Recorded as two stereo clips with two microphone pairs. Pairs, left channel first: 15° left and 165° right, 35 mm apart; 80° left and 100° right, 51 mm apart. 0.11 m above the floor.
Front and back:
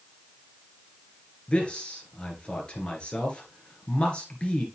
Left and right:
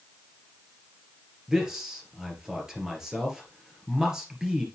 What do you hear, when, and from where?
1.5 s a man speaking: 25° right, 2 m